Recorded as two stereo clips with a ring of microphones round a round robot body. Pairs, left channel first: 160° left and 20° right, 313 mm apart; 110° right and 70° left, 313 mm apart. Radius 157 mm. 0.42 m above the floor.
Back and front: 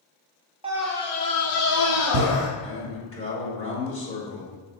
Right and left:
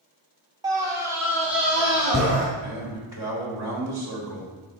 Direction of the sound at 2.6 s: 90° left.